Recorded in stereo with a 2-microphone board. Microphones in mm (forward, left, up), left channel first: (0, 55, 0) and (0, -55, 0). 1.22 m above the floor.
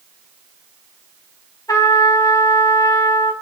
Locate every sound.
1.7 s a trumpet: 35° left (ahead or behind), 4 m